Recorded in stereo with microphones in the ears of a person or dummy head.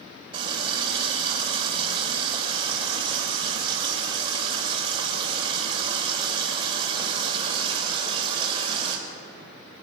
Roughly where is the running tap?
Right.